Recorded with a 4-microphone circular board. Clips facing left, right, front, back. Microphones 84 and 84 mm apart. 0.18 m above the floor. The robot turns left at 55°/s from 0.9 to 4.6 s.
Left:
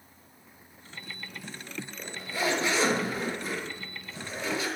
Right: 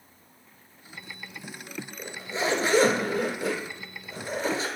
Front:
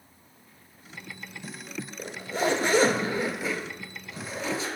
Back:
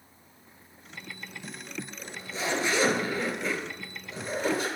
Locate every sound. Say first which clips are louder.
2.0 s a zipper: right 1 dB, front 9 dB; 5° right, 0.7 m; by 4.7 s 150° right, 0.7 m